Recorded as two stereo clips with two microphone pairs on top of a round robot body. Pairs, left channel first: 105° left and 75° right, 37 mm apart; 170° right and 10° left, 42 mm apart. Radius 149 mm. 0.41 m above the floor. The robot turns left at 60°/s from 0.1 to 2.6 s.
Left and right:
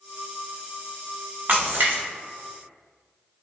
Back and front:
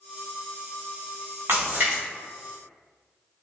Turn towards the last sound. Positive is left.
turn(degrees=-95)